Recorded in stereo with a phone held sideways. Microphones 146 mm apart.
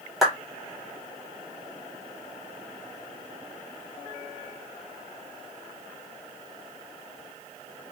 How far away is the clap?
About 1.3 m.